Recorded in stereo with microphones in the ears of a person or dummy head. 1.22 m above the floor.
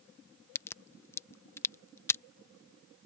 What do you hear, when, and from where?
0.6 s a crack: 15° left (ahead or behind)